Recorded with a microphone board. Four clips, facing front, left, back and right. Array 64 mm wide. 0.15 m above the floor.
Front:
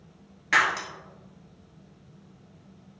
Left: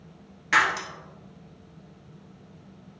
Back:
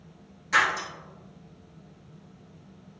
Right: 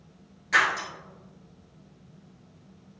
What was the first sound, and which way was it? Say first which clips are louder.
Breaking glass: left 1 dB, front 1 dB; 35° left.